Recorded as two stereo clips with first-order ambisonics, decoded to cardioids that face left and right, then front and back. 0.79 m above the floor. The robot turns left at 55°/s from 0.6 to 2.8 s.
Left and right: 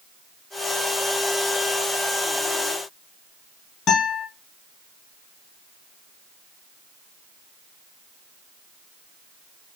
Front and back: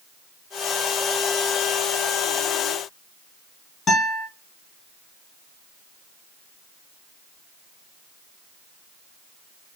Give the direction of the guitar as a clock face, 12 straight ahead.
10 o'clock.